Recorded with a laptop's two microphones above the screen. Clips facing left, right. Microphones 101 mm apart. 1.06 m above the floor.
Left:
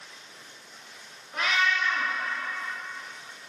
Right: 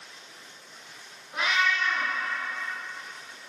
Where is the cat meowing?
10° right (ahead or behind), 0.7 m.